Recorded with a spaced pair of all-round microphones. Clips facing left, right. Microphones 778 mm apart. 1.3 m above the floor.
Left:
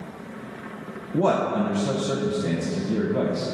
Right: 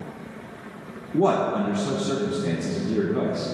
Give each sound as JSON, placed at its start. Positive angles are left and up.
{"t": 1.1, "sound": "a man speaking", "side_deg": 10, "distance_m": 0.6}